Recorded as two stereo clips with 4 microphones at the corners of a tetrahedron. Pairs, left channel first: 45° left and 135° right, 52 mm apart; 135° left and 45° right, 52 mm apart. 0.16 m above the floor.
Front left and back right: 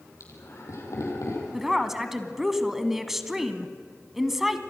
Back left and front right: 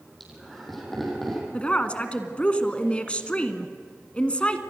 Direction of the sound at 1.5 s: 150° left.